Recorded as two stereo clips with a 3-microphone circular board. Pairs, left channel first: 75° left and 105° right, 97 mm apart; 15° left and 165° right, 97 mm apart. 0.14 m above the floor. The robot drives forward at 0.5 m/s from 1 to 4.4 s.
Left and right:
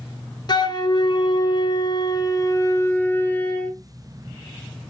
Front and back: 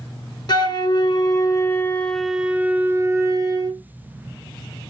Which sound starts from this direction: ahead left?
A flute, at 0.5 s.